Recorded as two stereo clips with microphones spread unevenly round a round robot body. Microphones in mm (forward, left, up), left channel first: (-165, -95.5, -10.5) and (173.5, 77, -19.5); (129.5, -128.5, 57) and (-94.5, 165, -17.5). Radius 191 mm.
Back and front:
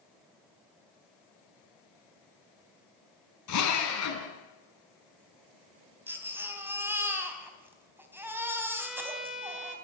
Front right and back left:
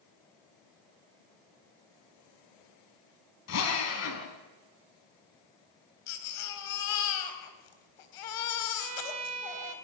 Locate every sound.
3.5 s a drill: 105° right, 5 m
6.1 s a baby crying: 60° right, 3.5 m
8.8 s a violin: 115° left, 3 m